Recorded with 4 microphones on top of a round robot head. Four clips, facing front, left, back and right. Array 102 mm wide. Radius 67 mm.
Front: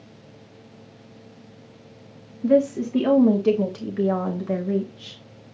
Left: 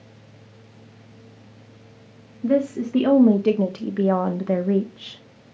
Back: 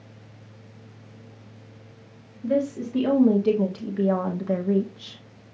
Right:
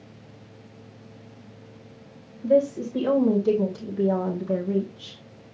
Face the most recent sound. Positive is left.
turn(degrees=115)